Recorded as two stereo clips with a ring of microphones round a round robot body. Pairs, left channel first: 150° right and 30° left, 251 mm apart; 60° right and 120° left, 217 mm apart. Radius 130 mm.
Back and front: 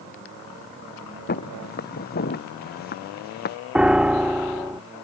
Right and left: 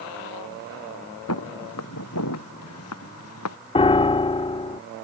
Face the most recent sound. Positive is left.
turn(degrees=-50)